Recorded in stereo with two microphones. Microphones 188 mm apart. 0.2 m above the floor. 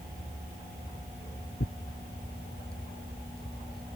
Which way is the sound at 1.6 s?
65° left (ahead or behind).